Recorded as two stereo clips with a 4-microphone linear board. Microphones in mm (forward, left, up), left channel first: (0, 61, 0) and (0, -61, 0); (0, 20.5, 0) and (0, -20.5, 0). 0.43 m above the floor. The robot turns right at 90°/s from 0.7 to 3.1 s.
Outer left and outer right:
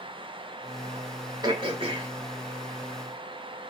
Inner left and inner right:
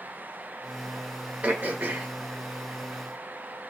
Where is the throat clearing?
135° right, 1.1 m; by 2.1 s 75° right, 1.1 m.